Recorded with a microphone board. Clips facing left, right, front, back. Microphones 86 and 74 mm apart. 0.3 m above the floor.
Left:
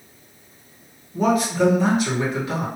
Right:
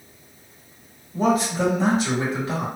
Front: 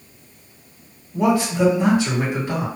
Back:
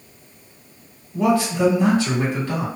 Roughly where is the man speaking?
Ahead right.